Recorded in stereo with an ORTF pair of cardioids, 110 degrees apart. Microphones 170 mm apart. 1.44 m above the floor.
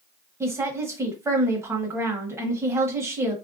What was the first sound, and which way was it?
A woman speaking, 15° right.